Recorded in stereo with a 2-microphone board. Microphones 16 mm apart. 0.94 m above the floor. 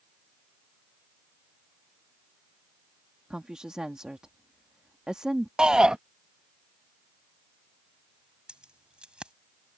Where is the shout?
60° right (ahead or behind).